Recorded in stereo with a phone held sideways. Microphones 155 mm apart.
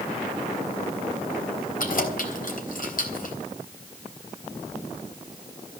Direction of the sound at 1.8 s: 60° left (ahead or behind).